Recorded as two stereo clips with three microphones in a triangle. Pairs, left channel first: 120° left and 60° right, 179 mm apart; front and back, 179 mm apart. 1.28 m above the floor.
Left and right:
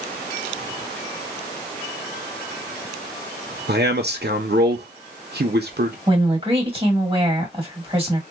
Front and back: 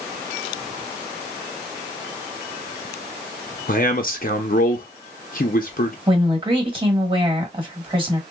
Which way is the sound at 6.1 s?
115° right.